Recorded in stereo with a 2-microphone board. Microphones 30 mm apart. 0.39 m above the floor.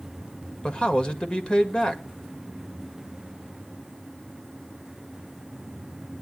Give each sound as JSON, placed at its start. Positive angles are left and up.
{"t": 0.6, "sound": "a man speaking", "side_deg": 40, "distance_m": 1.8}